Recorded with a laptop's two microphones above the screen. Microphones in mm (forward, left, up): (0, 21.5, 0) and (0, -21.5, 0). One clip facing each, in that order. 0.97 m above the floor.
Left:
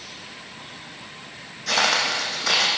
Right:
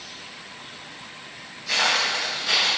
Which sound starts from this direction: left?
Footsteps, at 1.7 s.